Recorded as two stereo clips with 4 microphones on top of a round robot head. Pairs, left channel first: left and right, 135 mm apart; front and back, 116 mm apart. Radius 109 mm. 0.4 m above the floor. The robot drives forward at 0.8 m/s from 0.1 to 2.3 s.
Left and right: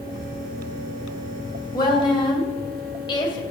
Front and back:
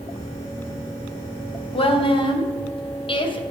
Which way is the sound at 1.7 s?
30° left.